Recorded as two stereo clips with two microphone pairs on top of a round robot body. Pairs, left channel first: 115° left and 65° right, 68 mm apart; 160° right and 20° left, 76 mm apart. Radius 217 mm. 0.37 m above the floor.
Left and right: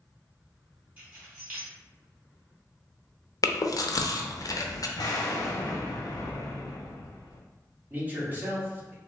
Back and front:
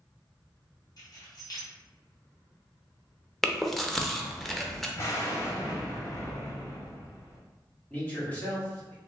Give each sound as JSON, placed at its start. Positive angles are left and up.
{"t": 1.0, "sound": "keys jangling", "azimuth_deg": -130, "distance_m": 1.9}
{"t": 3.4, "sound": "chewing", "azimuth_deg": 120, "distance_m": 0.7}
{"t": 5.0, "sound": "an explosion", "azimuth_deg": 140, "distance_m": 0.6}
{"t": 7.9, "sound": "a man speaking", "azimuth_deg": -110, "distance_m": 1.7}